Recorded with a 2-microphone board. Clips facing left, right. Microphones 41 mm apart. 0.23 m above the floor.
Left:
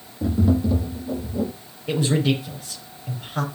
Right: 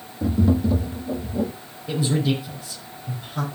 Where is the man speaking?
55° left (ahead or behind), 5.5 m.